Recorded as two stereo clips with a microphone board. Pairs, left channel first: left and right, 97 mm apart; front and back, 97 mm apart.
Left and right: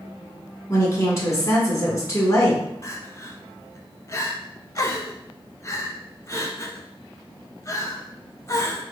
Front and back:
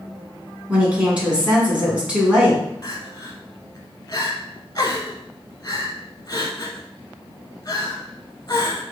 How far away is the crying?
About 0.9 m.